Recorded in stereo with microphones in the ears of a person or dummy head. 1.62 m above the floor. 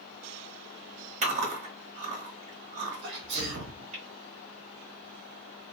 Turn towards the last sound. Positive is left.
turn(degrees=-60)  # may be behind; listen again after turning